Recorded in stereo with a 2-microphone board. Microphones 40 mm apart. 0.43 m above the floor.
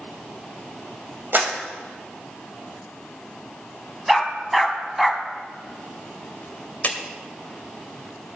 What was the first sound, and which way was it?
A clap, 55° right (ahead or behind).